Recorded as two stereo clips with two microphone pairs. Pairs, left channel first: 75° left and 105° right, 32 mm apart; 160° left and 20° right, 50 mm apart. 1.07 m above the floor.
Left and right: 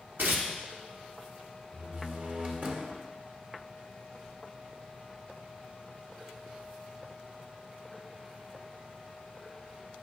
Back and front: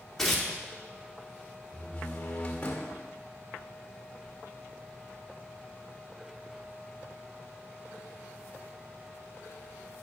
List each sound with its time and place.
0.2 s tearing paper: 120° right, 1.9 m
1.7 s a door slam: 135° right, 1.9 m